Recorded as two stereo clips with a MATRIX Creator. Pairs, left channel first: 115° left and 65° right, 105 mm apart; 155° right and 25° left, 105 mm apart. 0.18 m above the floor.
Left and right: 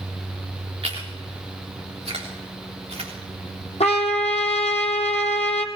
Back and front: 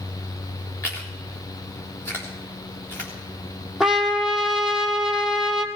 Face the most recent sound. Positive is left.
turn(degrees=105)